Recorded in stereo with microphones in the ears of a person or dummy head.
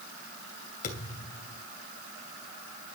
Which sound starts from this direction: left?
A thud, at 0.8 s.